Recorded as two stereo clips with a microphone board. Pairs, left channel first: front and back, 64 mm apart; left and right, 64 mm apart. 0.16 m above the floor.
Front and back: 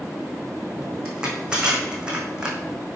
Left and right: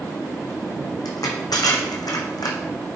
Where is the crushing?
100° left, 2 m.